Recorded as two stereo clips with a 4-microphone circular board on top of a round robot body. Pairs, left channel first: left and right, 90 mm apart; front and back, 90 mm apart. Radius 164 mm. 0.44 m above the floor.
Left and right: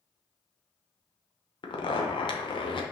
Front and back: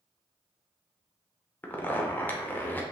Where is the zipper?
70° left, 0.8 m.